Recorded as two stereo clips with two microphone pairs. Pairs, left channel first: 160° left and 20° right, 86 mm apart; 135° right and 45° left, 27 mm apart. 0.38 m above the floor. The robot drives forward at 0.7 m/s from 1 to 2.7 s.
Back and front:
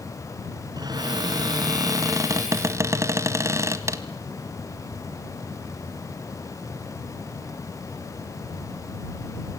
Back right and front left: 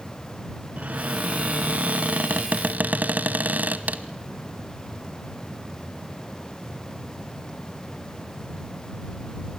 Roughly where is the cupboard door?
Ahead.